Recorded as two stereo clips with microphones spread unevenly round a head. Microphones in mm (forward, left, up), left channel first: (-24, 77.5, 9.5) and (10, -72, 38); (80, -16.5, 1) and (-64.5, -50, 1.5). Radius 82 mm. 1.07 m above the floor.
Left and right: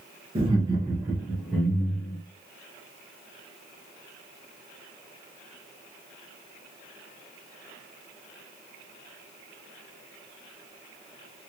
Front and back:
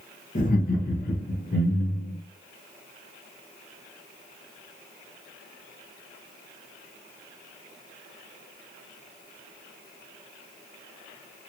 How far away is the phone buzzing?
I don't hear a phone buzzing.